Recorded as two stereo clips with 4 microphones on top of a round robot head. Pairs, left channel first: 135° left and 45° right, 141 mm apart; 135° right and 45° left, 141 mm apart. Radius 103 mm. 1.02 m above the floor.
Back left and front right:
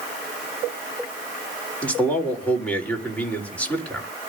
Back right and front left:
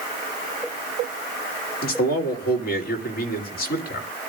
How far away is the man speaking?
About 3.5 m.